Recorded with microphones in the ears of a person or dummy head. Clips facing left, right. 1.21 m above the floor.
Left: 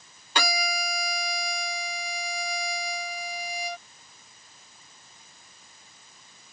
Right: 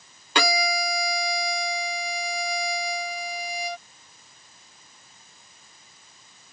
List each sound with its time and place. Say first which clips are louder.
0.3 s a violin: right 5 dB; 55° right (ahead or behind)